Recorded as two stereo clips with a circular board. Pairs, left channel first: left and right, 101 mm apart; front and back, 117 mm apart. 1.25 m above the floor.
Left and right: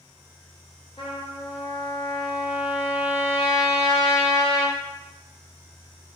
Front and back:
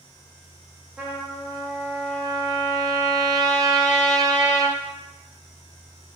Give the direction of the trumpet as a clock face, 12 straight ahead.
9 o'clock.